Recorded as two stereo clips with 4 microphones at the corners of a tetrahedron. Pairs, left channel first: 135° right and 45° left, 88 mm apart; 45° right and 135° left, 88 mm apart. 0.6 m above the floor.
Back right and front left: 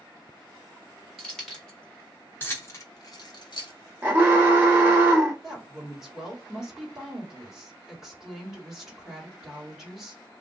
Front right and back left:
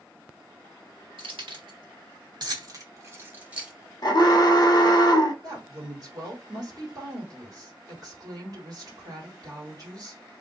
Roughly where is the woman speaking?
Behind left.